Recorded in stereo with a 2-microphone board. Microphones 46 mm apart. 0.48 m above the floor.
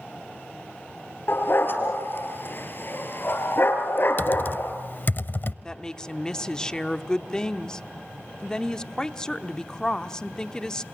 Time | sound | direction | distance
1.3 | a dog barking | 55° left (ahead or behind) | 3 m
4.2 | typing on a keyboard | 45° left (ahead or behind) | 0.6 m
5.6 | a woman speaking | 15° left (ahead or behind) | 0.9 m